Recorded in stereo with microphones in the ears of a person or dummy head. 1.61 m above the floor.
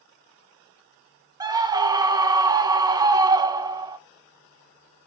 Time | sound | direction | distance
1.4 | a scream | 25° right (ahead or behind) | 1.1 m